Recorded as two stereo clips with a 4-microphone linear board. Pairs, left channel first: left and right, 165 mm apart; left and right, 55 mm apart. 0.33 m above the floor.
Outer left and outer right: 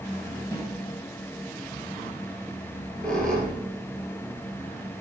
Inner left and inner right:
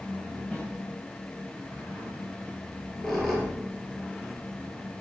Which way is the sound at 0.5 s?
20° left (ahead or behind).